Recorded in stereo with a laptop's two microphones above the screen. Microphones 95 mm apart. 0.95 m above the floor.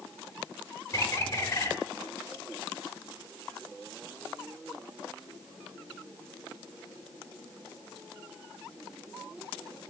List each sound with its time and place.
0.9 s a bird: 30° left (ahead or behind), 1.1 m